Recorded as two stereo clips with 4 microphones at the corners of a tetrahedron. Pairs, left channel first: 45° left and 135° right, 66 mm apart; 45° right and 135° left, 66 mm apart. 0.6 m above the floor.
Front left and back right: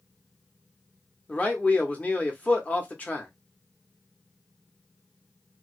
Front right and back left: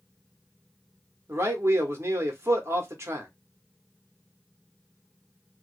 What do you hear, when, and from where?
1.3 s a man speaking: 105° left, 0.8 m